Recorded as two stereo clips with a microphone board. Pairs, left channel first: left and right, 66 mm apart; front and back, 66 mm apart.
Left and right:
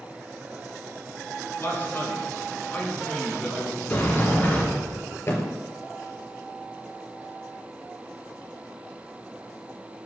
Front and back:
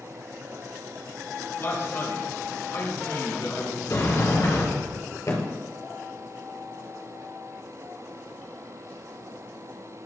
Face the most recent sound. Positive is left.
turn(degrees=40)